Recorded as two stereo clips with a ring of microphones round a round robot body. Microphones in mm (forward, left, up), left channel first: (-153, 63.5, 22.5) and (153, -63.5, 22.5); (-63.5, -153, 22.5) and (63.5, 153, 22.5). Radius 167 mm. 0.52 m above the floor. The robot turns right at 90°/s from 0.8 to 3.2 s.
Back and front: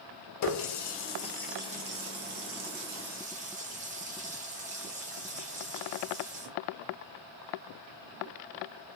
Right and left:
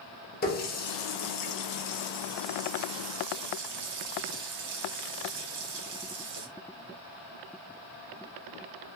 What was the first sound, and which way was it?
A running tap, 175° right.